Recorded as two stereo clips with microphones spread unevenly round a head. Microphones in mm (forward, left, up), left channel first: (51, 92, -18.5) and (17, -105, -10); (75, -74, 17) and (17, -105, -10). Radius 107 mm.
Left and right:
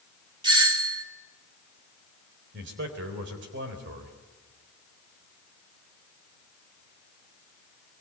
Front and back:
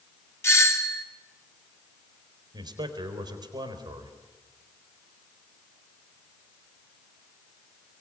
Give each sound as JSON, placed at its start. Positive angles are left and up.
{"t": 0.4, "sound": "a doorbell", "azimuth_deg": -30, "distance_m": 2.5}
{"t": 2.5, "sound": "a man speaking", "azimuth_deg": -145, "distance_m": 4.0}